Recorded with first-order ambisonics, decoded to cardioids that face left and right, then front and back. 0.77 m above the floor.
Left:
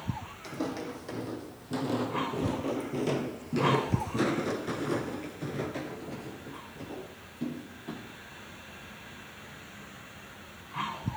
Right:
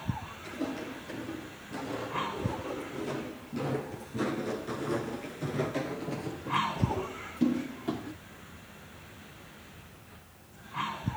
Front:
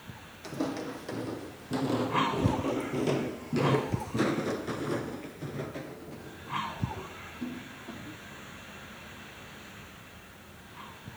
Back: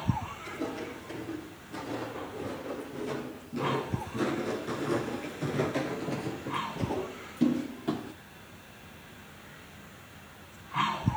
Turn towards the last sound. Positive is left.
turn(degrees=-150)